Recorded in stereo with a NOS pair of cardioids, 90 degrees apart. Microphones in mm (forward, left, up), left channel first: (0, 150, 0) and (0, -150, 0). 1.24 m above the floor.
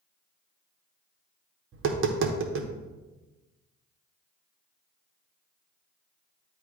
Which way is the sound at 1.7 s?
45° right.